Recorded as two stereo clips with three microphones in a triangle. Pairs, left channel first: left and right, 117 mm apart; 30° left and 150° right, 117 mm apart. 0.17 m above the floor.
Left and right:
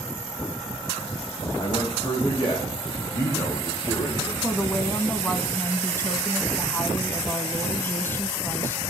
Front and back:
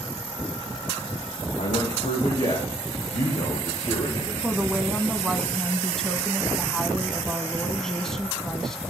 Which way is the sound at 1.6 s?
35° left.